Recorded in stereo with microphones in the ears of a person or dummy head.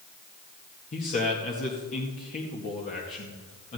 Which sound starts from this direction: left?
A man speaking, at 0.9 s.